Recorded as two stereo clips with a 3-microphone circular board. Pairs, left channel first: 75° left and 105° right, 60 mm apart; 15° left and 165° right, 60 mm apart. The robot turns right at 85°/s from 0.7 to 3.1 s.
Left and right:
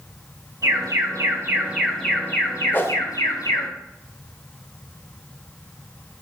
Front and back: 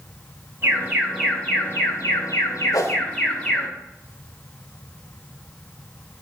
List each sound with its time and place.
0.6 s an alarm: 120° right, 5.5 m; by 3.7 s 85° left, 5.5 m
2.7 s a whoosh: 20° left, 1.5 m; by 3.0 s 40° left, 1.5 m